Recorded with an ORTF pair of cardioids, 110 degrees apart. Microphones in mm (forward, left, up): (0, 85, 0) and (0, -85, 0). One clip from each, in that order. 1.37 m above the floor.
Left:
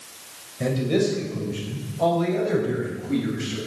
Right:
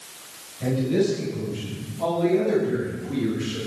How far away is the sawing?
No sawing in this recording.